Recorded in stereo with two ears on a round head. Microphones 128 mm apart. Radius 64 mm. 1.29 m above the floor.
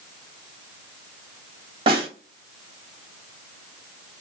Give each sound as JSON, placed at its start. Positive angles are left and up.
{"t": 1.9, "sound": "a snare drum", "side_deg": -40, "distance_m": 1.2}